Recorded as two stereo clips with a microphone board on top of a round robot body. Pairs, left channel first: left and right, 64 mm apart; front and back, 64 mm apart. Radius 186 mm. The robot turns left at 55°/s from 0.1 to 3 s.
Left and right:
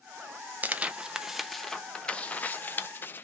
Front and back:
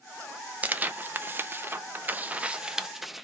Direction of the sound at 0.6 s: 135° right.